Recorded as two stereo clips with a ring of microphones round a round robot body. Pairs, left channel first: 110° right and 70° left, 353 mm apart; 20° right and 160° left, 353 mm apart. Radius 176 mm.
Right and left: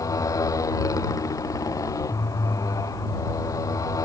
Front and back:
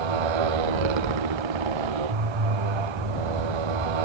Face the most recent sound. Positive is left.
turn(degrees=165)